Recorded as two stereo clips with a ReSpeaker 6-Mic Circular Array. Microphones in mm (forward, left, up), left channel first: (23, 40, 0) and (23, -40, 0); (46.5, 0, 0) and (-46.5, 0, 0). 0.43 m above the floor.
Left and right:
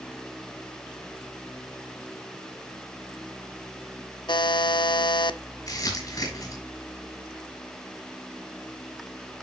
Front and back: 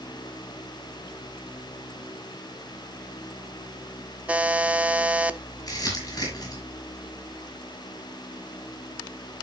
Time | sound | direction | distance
4.3 | a buzzer | 105° left | 0.6 m
5.7 | crumpling | 50° left | 5.5 m